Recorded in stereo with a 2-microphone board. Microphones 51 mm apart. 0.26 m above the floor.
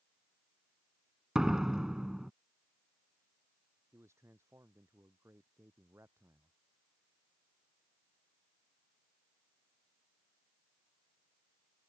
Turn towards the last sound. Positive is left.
turn(degrees=-65)  # may be behind; listen again after turning